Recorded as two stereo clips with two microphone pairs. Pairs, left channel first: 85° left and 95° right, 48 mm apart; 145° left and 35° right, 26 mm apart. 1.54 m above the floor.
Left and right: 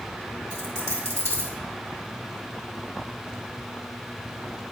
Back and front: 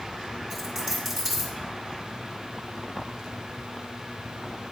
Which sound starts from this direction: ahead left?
A dropped coin, at 0.5 s.